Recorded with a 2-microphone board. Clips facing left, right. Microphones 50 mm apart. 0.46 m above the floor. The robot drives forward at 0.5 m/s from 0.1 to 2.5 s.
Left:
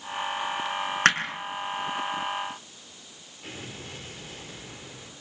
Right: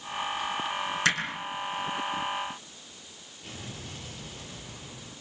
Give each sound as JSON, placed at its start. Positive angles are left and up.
{"t": 1.1, "sound": "hammering", "side_deg": 50, "distance_m": 4.5}
{"t": 3.4, "sound": "an explosion", "side_deg": 45, "distance_m": 9.0}